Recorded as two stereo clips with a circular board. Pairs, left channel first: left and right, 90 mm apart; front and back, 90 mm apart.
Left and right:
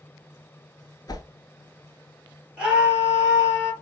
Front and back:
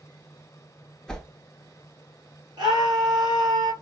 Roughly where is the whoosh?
Left.